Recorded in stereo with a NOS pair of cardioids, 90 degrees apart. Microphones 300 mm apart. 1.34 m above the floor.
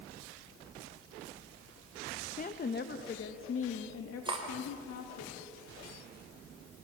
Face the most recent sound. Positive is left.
turn(degrees=-15)